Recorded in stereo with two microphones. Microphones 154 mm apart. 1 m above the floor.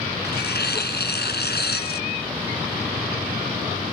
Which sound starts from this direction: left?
Tearing paper, at 0.2 s.